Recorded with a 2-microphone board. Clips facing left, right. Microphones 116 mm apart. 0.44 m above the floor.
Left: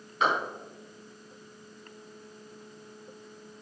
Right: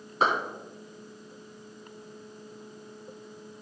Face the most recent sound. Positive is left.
turn(degrees=-35)  # may be behind; listen again after turning